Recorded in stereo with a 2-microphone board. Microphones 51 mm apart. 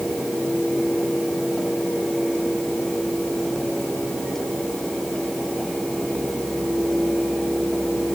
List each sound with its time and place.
Only background noise.